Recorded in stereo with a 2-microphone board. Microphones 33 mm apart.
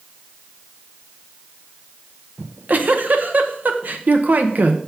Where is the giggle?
60° right (ahead or behind), 0.8 m.